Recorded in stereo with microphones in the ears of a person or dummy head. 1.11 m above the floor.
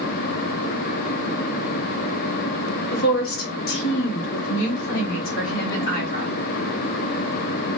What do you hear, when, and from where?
2.9 s a woman speaking: 75° left (ahead or behind), 1.9 m; by 6.3 s 60° left (ahead or behind), 3.5 m